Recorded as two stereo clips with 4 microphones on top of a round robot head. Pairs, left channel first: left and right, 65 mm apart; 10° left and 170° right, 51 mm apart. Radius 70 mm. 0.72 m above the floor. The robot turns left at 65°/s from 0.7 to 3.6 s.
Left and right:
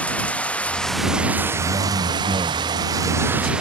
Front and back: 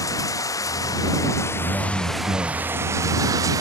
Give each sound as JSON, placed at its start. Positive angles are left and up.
{"t": 0.0, "sound": "running water", "azimuth_deg": 20}
{"t": 1.6, "sound": "a man speaking", "azimuth_deg": -60}